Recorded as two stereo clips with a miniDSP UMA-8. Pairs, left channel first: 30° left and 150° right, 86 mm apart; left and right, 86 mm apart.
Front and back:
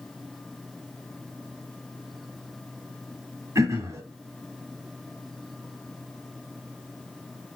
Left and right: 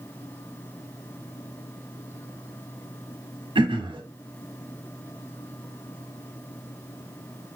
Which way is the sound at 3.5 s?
100° right.